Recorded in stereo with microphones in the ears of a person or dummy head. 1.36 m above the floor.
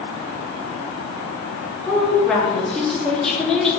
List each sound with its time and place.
1.8 s a woman speaking: 10° left (ahead or behind), 2 m